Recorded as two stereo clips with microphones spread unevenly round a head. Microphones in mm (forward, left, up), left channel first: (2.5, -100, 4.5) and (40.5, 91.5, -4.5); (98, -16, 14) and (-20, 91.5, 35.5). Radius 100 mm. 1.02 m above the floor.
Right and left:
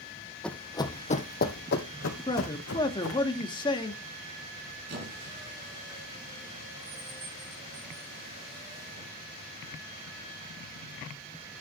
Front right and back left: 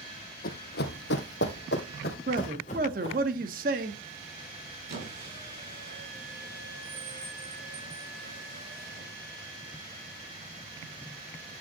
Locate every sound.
0.4 s running footsteps: 20° right, 1.6 m; by 3.3 s 110° right, 3.5 m
2.3 s a man speaking: 170° right, 1.5 m
4.9 s a squeak: 120° left, 4.5 m